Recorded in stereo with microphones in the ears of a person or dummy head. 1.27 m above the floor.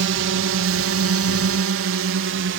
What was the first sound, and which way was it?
A drone, 55° right (ahead or behind).